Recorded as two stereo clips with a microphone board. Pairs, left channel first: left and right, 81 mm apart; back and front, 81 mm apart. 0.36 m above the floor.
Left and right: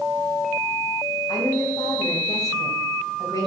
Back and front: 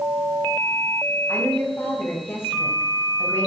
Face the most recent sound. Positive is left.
turn(degrees=125)